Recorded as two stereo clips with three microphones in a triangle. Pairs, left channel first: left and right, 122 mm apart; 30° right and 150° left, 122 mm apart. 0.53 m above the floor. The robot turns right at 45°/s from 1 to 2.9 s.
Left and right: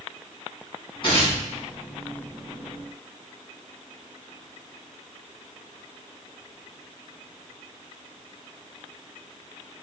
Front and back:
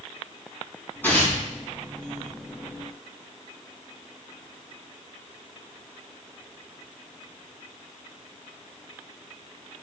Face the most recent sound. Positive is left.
turn(degrees=130)